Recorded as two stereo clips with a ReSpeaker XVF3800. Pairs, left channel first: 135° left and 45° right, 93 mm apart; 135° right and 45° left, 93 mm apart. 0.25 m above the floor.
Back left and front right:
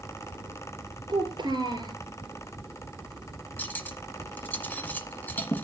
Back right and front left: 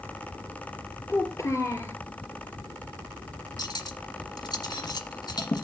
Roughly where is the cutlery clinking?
Behind.